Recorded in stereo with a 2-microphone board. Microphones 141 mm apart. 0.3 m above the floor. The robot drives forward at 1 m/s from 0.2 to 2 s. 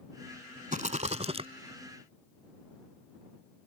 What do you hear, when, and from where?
0.7 s a rattle: 65° right (ahead or behind); by 1.5 s 40° right (ahead or behind)